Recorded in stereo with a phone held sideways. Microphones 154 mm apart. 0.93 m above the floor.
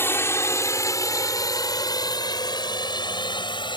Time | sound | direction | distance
0.0 | a drone | 15° left (ahead or behind) | ?